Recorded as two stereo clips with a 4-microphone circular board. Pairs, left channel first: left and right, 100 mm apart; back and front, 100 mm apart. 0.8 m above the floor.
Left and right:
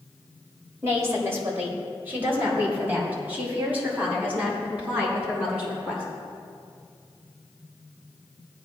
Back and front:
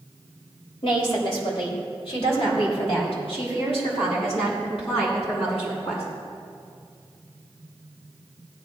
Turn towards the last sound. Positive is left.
turn(degrees=-170)